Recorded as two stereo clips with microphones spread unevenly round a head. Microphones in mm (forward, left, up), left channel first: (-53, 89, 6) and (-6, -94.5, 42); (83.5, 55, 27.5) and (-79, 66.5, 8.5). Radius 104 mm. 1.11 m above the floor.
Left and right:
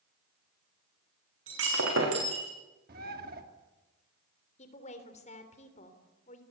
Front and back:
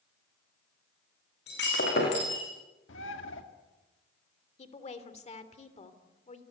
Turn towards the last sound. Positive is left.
turn(degrees=45)